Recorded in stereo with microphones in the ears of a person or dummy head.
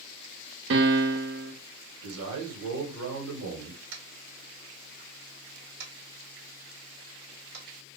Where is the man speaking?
75° right (ahead or behind), 1.3 m.